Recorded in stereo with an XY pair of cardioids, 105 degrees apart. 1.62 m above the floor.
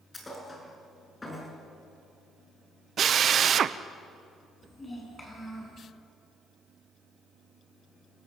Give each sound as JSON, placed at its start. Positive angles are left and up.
{"t": 0.1, "sound": "a thud", "azimuth_deg": 25, "distance_m": 6.0}
{"t": 3.0, "sound": "a drill", "azimuth_deg": -55, "distance_m": 0.9}
{"t": 4.6, "sound": "a child speaking", "azimuth_deg": 20, "distance_m": 9.5}